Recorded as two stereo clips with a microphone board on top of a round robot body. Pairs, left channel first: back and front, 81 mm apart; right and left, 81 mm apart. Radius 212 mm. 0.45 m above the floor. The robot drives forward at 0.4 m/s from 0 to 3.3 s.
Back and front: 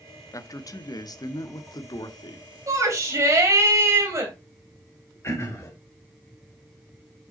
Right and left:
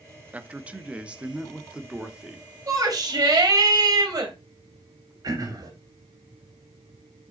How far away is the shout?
About 3 m.